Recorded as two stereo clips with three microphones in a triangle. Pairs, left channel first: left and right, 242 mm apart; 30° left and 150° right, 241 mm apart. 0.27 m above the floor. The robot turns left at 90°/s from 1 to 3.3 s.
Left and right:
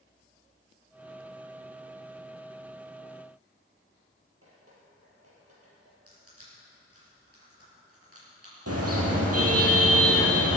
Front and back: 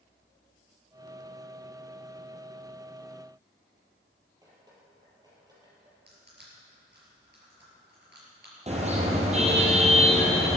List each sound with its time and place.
4.4 s dripping: 75° right, 5 m
6.1 s crushing: 105° right, 5.5 m
8.7 s a car horn: 85° right, 3.5 m